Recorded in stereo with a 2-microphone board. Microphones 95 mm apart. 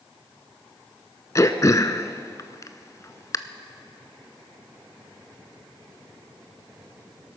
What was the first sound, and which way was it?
Throat clearing, 35° left (ahead or behind).